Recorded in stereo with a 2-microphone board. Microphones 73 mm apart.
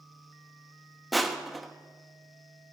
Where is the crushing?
Centre (ahead or behind), 1.1 m.